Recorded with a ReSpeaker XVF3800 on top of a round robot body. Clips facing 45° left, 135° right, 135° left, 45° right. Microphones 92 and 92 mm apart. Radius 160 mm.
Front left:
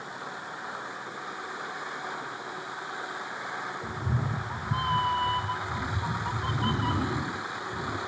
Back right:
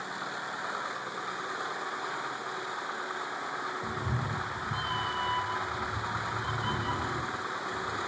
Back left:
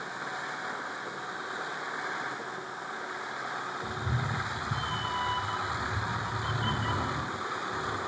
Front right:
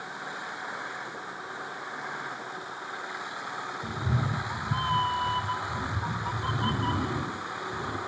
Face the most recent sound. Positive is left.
turn(degrees=10)